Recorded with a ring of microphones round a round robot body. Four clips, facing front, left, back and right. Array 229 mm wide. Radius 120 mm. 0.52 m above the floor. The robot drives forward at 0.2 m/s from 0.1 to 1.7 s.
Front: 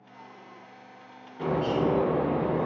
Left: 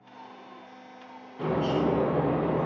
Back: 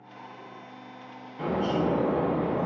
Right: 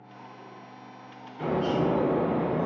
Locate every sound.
1.4 s a bird: 155° left, 1.4 m